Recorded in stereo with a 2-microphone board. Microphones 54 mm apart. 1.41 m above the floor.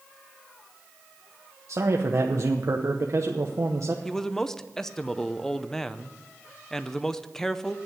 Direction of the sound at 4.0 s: 10° left (ahead or behind).